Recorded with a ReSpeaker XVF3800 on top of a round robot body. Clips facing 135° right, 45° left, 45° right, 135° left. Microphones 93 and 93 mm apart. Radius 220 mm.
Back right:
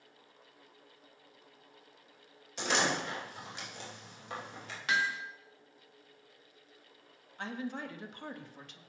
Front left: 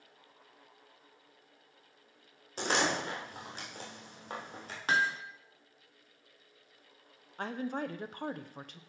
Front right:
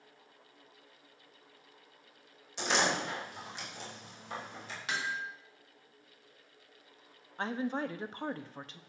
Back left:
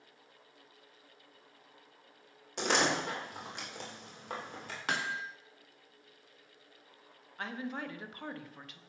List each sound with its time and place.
2.6 s a door slam: 95° left, 3 m
4.9 s hammering: 95° left, 0.8 m
7.4 s a woman speaking: 10° left, 1.1 m